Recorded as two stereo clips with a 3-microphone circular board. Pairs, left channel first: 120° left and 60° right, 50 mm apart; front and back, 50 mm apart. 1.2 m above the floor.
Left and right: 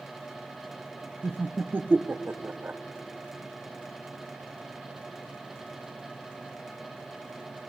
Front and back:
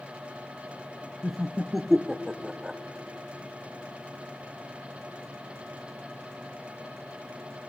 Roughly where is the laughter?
Right.